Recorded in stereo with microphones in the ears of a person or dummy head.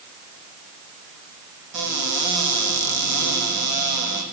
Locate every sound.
1.7 s a cupboard door: 55° right (ahead or behind), 1.9 m